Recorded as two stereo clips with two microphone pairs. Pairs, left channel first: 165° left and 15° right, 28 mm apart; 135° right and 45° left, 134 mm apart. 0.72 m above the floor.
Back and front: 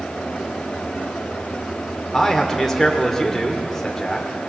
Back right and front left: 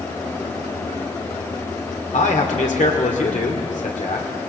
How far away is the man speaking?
About 1.7 m.